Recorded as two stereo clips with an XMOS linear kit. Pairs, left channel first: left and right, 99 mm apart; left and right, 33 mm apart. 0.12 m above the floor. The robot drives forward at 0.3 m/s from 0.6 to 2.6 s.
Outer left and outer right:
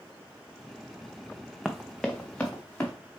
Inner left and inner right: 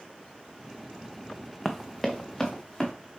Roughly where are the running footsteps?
Centre.